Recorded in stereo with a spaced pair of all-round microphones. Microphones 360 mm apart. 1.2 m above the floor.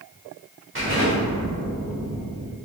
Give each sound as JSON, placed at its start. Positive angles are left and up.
{"t": 0.8, "sound": "an explosion", "side_deg": -35, "distance_m": 1.6}